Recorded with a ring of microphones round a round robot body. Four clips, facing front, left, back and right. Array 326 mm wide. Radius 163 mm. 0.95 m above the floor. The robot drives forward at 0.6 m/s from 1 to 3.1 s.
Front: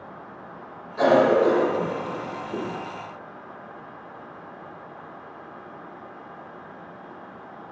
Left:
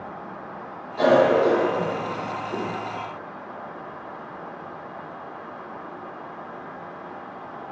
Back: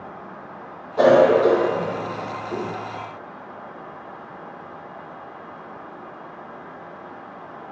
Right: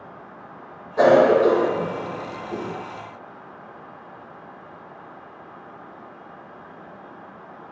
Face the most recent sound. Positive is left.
turn(degrees=-165)